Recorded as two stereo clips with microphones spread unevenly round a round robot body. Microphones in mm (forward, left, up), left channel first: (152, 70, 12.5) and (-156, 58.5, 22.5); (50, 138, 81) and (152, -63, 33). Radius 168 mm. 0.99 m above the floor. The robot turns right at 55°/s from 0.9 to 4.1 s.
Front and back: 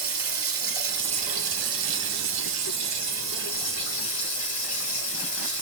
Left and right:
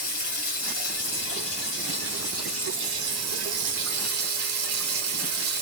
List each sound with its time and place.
0.0 s running water: 135° left, 2 m; by 5.6 s 50° right, 2 m